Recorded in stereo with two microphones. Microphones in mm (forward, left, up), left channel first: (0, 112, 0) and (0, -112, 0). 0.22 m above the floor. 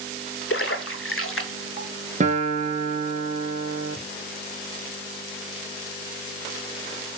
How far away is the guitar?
About 0.8 m.